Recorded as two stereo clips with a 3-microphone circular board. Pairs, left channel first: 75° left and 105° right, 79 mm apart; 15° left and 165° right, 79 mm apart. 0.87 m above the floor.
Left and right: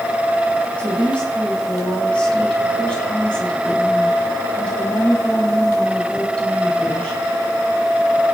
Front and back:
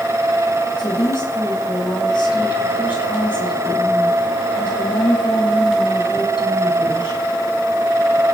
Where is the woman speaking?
Straight ahead, 6 m.